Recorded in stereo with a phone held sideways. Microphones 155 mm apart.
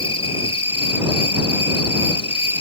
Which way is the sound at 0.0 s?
35° left (ahead or behind).